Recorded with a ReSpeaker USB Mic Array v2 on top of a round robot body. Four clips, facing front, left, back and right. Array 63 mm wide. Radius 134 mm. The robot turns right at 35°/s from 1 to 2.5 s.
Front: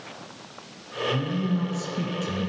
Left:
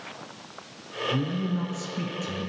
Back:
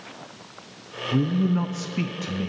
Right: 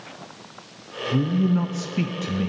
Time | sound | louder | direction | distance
1.1 | a man speaking | right 8 dB, back 6 dB | 160° right | 0.5 m